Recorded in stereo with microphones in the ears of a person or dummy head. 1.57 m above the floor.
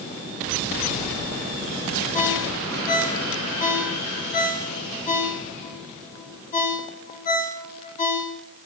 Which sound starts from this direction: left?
A ringtone, at 2.1 s.